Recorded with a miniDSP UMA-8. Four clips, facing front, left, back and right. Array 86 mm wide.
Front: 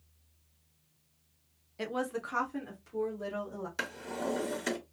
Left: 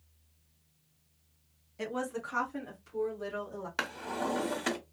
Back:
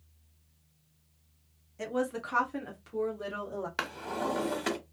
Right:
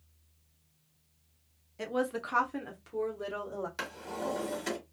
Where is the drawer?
140° left, 1.0 m.